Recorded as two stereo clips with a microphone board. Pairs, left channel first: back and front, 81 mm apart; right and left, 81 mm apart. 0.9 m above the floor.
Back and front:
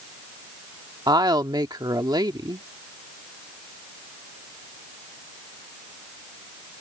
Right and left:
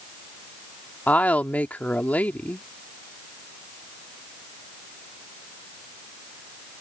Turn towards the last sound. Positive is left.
turn(degrees=-20)